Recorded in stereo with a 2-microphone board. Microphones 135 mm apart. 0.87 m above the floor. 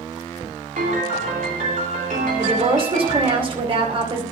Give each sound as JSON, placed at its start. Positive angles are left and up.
{"t": 0.8, "sound": "a piano", "side_deg": -70, "distance_m": 3.0}
{"t": 2.4, "sound": "a woman speaking", "side_deg": -40, "distance_m": 2.5}